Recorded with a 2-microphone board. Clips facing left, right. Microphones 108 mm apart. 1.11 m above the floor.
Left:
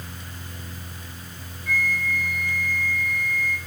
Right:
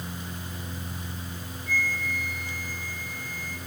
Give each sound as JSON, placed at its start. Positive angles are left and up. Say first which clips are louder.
{"t": 1.7, "sound": "a flute", "louder": "left 4 dB", "side_deg": 75, "distance_m": 2.5}